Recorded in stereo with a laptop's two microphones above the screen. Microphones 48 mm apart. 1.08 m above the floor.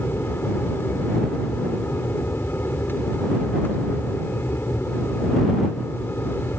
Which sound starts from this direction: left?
An aircraft, at 0.0 s.